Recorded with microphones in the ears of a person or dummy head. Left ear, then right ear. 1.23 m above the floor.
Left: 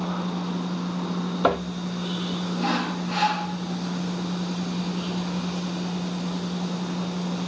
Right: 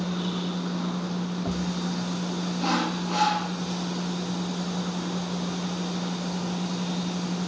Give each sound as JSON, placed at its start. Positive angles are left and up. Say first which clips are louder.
{"t": 2.6, "sound": "sawing", "louder": "even", "side_deg": 20, "distance_m": 5.5}